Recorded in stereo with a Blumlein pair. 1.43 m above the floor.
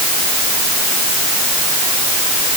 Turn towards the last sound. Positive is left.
No sound to turn to.